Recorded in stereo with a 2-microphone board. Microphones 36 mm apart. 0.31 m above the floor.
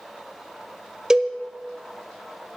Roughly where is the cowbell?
Centre.